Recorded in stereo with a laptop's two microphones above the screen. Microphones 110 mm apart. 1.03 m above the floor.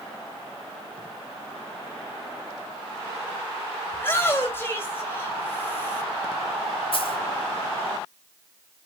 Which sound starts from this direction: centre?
A shout, at 3.9 s.